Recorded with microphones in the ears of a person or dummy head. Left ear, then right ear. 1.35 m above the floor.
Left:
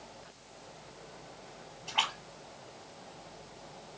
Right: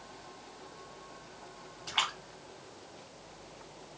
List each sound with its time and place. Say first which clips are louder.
1.9 s a splash: left 1 dB; 50° right (ahead or behind), 1.8 m